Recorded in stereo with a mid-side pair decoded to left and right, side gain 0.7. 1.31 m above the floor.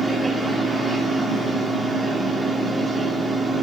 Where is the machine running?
10° right, 2 m.